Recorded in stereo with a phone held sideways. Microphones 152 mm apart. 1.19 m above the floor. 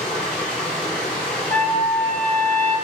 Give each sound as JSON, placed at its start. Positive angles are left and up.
{"t": 0.0, "sound": "running water", "side_deg": 10, "distance_m": 1.7}
{"t": 1.5, "sound": "a trumpet", "side_deg": 15, "distance_m": 1.4}